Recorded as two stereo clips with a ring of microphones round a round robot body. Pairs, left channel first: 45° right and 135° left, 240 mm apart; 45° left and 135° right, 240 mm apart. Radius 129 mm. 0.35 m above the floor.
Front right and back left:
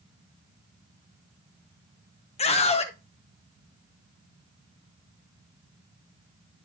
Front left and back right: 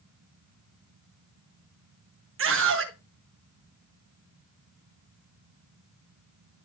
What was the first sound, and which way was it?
A scream, 110° right.